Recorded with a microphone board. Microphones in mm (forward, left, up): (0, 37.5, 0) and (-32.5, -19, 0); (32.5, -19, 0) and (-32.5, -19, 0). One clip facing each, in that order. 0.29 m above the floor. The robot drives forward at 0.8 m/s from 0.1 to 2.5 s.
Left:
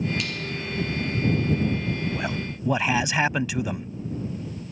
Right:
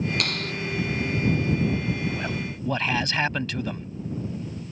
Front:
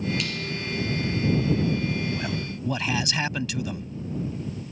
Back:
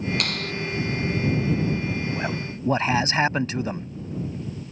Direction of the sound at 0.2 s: 150° right.